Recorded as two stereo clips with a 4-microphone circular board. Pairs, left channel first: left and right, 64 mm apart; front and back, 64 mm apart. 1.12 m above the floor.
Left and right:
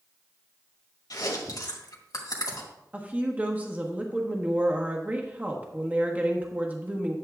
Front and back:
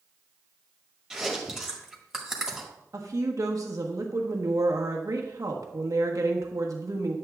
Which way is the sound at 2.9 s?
155° right.